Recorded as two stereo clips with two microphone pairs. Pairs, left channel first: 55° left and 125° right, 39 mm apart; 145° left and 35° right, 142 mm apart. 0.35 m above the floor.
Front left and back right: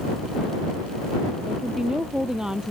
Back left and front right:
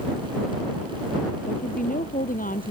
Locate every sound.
1.5 s a woman speaking: 160° left